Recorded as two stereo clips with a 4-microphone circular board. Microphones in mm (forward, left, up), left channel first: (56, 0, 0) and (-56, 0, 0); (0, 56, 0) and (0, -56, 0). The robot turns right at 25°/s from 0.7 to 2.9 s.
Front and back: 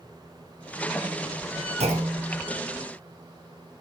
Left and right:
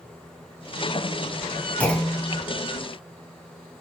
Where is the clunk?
170° left, 4 m; by 2.4 s 175° right, 4 m.